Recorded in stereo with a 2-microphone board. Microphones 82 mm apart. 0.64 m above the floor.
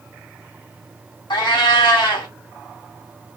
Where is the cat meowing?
80° left, 1.2 m.